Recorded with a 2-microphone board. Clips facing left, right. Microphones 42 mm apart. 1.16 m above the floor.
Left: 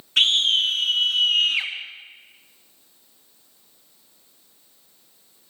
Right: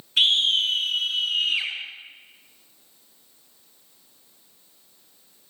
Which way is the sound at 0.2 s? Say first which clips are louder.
Left 1 dB; 70° left (ahead or behind).